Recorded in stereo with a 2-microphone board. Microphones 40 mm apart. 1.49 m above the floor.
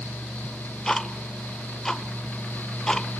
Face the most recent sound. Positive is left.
turn(degrees=15)  # may be behind; listen again after turning